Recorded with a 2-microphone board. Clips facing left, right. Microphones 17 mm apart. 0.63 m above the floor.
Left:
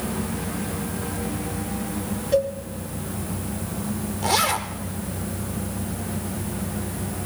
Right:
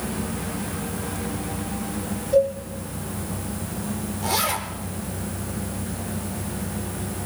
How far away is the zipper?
About 1.5 m.